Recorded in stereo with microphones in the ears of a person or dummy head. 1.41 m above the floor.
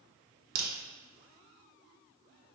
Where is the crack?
50° right (ahead or behind), 0.7 m.